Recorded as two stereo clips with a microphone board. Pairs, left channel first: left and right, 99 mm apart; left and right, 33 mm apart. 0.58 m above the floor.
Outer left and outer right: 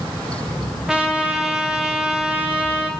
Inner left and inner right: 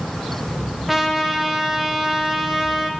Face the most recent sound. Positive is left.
turn(degrees=-5)  # may be behind; listen again after turning